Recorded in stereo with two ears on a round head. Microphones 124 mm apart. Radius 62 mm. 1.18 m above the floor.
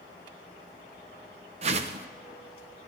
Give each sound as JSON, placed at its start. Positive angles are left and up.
{"t": 1.6, "sound": "a whoosh", "side_deg": -45, "distance_m": 0.6}